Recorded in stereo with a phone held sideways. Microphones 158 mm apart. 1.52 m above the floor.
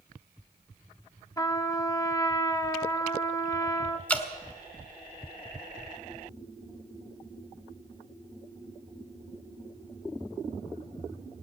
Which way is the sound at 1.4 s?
20° left (ahead or behind).